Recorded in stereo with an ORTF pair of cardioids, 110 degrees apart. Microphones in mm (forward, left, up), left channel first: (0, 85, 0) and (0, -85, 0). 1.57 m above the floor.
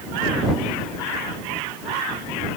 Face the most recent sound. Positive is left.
No sound to turn to.